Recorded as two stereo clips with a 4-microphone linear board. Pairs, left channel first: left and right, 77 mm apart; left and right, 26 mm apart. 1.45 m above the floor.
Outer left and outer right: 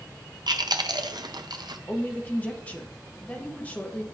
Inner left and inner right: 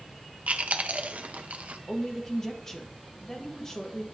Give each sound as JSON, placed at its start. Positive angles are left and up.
{"t": 0.5, "sound": "chewing", "side_deg": -65, "distance_m": 0.6}
{"t": 1.9, "sound": "a woman speaking", "side_deg": 15, "distance_m": 1.4}